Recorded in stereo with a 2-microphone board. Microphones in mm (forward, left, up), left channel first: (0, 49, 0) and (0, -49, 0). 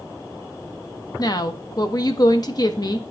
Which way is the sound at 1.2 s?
40° left (ahead or behind).